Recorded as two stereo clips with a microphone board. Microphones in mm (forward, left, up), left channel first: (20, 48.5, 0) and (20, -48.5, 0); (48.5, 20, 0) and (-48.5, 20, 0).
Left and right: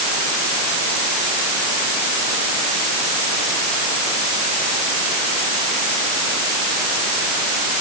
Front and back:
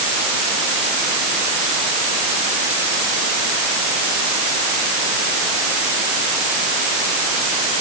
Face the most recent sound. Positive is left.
No sound to turn to.